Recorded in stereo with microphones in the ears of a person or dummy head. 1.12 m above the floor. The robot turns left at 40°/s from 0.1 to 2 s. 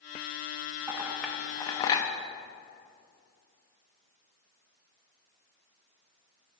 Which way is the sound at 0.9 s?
10° right (ahead or behind).